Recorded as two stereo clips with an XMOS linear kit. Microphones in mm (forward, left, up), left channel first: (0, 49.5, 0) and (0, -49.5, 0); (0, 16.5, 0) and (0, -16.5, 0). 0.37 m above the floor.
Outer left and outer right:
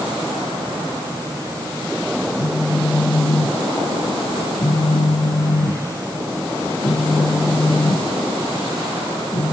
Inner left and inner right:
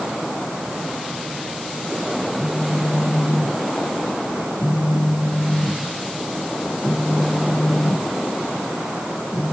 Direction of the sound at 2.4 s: 55° left (ahead or behind).